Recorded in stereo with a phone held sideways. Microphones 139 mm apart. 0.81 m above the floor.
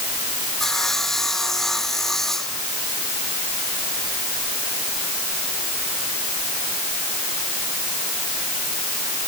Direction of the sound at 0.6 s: 5° left (ahead or behind).